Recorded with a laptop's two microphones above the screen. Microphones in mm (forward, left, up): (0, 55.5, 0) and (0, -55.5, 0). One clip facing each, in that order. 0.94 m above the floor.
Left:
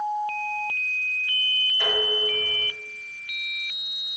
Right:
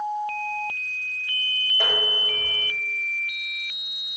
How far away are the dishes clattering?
About 4 m.